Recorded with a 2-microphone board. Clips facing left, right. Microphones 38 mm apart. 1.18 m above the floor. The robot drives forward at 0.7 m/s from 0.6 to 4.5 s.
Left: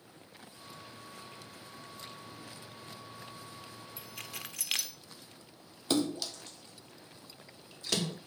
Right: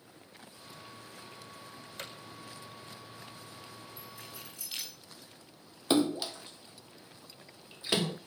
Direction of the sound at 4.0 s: 90° left.